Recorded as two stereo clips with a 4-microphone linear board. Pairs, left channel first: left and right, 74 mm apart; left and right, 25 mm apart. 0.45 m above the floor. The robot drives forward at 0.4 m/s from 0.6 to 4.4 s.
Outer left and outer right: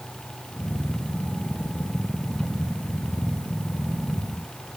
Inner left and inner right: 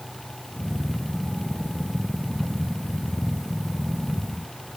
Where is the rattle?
No rattle in this recording.